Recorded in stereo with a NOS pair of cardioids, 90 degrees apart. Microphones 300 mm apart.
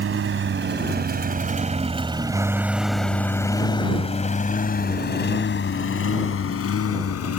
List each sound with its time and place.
0.0 s a lawn mower: 50° right; by 7.4 s 55° left